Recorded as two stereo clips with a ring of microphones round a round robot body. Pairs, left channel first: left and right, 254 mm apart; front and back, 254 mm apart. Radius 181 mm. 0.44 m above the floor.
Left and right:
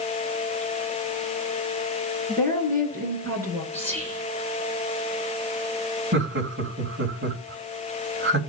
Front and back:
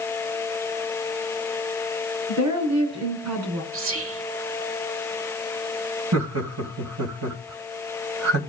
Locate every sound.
2.3 s a woman speaking: 170° left, 6 m; by 3.6 s 175° left, 5 m
3.7 s whispering: 170° left, 1.2 m
6.1 s laughter: 145° right, 2.5 m